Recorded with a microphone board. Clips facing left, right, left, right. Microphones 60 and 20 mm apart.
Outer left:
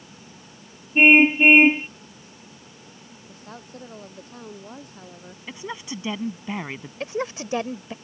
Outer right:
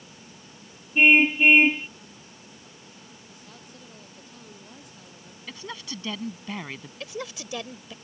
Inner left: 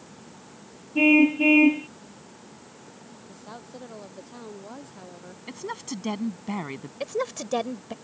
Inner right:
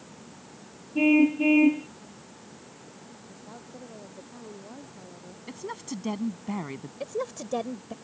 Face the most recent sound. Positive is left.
turn(degrees=35)  # may be behind; listen again after turning